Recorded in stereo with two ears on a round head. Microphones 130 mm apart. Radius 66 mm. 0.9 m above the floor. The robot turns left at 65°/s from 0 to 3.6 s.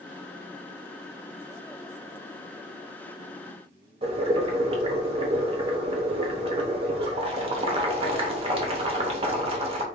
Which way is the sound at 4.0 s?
40° right (ahead or behind).